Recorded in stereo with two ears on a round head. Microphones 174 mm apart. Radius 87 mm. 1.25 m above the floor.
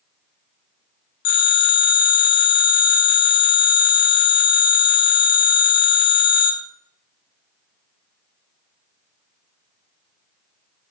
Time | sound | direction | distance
1.2 | a phone ringing | 85° left | 3.5 m